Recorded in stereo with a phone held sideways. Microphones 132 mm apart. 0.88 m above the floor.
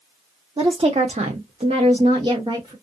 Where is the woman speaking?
35° right (ahead or behind), 0.7 m; by 2.7 s 30° right (ahead or behind), 1.1 m.